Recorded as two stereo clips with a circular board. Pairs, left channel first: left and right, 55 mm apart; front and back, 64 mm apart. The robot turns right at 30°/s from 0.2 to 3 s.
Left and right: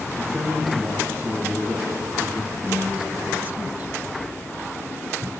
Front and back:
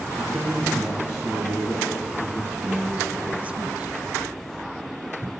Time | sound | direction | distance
0.2 | a man speaking | 75° right | 5 m
2.6 | a woman speaking | 140° right | 1.4 m